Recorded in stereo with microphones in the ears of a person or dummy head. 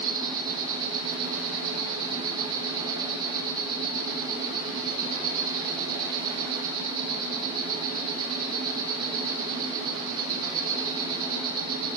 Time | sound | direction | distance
0.0 | an insect | 45° right (ahead or behind) | 4 m